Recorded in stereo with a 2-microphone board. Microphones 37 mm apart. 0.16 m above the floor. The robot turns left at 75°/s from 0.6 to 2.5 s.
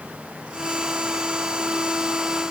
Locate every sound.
Only background noise.